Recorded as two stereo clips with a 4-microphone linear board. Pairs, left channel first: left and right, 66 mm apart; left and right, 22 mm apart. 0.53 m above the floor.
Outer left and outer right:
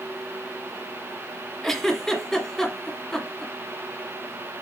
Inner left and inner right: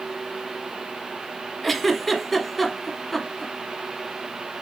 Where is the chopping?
I don't hear chopping.